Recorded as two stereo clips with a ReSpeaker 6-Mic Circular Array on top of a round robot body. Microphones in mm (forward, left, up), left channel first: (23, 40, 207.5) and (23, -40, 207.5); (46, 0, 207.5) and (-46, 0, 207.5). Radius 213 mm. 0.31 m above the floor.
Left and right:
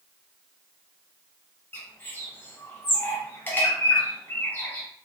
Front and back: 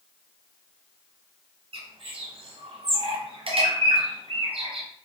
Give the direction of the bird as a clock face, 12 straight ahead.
7 o'clock.